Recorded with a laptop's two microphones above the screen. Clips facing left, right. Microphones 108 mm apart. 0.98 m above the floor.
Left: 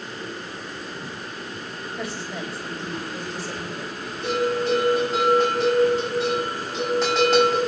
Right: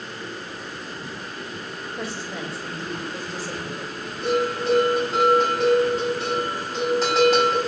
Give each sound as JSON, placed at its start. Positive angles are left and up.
{"t": 2.0, "sound": "a woman speaking", "side_deg": -30, "distance_m": 4.5}
{"t": 4.2, "sound": "a bell", "side_deg": 0, "distance_m": 5.0}